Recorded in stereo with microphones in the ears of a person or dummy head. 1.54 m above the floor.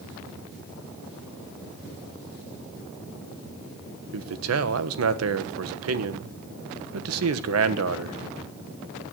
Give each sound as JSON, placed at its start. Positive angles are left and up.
{"t": 4.1, "sound": "a man speaking", "side_deg": -85, "distance_m": 1.2}